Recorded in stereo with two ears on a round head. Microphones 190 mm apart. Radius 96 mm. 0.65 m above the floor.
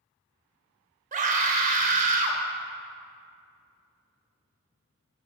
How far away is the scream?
About 1.1 m.